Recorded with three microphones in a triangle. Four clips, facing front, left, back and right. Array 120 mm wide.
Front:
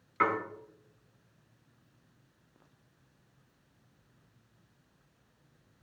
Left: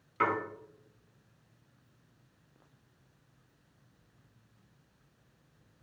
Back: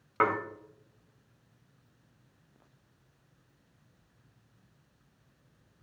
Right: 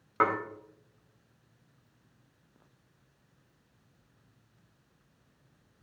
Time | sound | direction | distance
0.2 | dishes clattering | 135° right | 2 m